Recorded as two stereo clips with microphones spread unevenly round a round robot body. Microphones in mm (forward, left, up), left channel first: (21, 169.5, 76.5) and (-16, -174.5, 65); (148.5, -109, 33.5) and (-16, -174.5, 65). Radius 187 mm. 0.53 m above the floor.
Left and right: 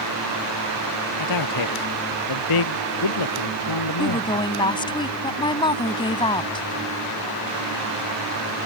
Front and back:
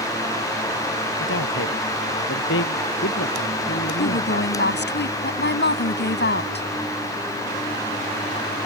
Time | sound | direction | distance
1.2 | a man speaking | 50° left | ?
4.0 | a woman speaking | 5° left | ?